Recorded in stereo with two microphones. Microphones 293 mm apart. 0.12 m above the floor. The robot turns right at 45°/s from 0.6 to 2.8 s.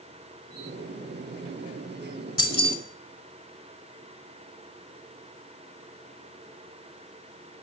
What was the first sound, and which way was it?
Keys jangling, 15° left (ahead or behind).